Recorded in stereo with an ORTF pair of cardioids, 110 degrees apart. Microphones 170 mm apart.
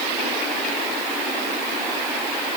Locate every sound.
Only background noise.